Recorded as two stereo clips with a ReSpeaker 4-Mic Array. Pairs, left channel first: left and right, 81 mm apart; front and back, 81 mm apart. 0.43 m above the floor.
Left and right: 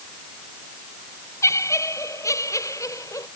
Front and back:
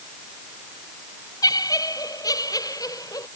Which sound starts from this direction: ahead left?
Laughter, at 1.4 s.